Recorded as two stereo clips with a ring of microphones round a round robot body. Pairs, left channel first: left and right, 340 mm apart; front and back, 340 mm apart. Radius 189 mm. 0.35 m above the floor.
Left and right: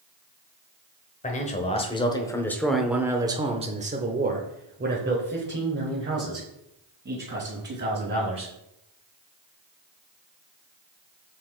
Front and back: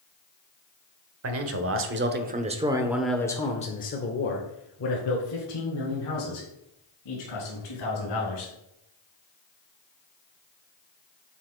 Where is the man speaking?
150° left, 1.2 m; by 8.5 s 35° right, 3 m.